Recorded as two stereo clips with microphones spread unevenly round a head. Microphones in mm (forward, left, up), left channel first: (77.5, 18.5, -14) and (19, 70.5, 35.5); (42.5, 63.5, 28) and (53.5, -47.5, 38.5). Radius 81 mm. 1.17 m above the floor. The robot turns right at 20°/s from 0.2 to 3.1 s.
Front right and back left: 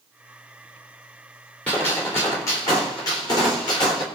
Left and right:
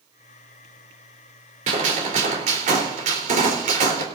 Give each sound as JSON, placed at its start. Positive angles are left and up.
{"t": 1.7, "sound": "a gunshot", "azimuth_deg": -120, "distance_m": 3.5}